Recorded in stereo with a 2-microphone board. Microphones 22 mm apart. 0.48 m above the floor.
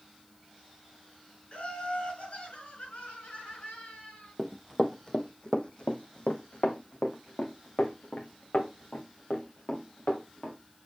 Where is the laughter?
55° left (ahead or behind), 4.5 m; by 4.3 s 65° left (ahead or behind), 6 m.